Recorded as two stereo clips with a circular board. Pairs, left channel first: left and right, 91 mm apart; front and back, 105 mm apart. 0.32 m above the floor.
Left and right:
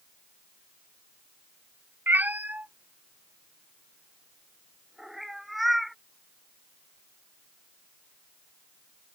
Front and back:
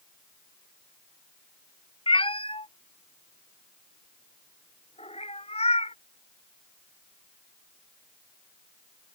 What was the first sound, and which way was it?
A cat meowing, 25° right.